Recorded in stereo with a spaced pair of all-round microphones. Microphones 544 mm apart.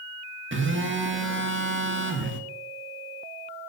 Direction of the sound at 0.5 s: 20° right (ahead or behind).